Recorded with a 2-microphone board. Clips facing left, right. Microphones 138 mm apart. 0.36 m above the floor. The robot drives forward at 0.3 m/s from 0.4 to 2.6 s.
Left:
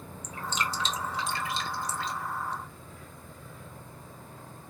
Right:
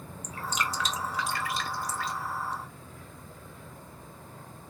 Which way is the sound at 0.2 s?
30° left (ahead or behind).